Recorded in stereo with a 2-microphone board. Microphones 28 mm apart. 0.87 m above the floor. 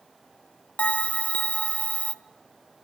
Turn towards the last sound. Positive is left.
turn(degrees=50)  # may be behind; listen again after turning